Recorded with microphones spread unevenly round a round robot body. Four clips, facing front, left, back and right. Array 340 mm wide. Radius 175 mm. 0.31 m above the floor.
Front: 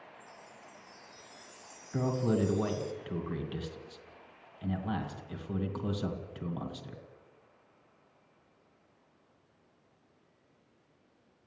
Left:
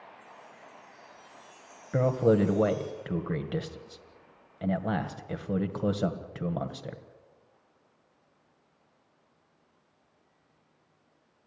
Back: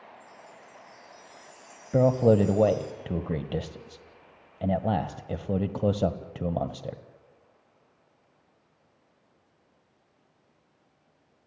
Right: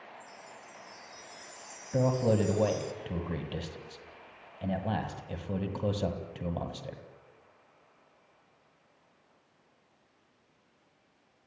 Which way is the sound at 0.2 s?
40° right.